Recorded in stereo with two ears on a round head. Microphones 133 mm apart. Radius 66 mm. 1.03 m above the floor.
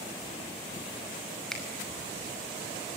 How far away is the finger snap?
About 5.5 m.